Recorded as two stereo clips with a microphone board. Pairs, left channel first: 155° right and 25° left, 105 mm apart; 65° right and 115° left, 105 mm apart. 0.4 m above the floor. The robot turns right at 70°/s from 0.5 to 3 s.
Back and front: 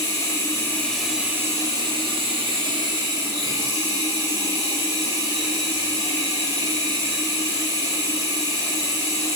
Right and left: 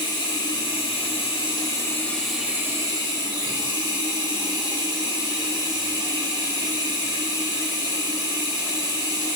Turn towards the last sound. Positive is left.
turn(degrees=70)